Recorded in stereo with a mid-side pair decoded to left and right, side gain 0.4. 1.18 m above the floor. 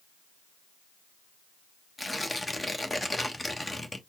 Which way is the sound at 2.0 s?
15° left.